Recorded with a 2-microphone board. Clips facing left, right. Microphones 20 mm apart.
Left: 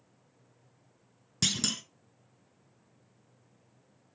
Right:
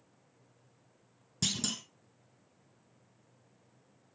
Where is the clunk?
35° left (ahead or behind), 1.0 m.